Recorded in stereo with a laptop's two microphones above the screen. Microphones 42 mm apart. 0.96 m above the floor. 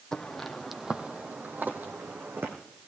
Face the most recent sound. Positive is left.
turn(degrees=-65)  # may be behind; listen again after turning